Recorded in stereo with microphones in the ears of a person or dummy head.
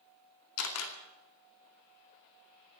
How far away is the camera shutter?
About 2.5 m.